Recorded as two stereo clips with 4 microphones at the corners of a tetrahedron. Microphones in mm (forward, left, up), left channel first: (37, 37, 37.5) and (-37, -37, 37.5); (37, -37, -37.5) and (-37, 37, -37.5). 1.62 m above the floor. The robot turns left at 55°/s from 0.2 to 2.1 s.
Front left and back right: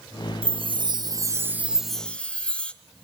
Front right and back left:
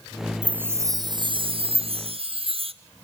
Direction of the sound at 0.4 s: 145° right.